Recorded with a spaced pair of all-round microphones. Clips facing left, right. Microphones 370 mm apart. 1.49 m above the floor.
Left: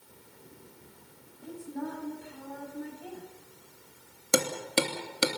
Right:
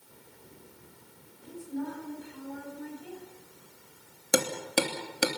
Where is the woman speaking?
65° left (ahead or behind), 9.5 m.